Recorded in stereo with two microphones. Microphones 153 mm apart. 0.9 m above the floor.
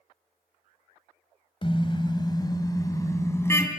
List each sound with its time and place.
1.6 s a car horn: 35° left (ahead or behind), 2.5 m; by 3.7 s 15° left (ahead or behind), 3.5 m